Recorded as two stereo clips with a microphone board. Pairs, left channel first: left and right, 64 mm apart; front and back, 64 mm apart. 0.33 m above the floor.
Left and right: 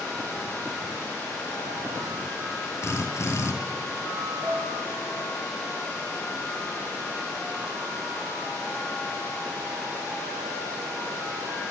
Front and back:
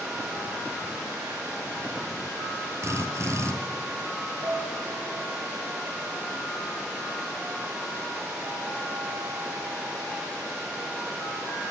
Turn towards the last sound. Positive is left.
turn(degrees=-140)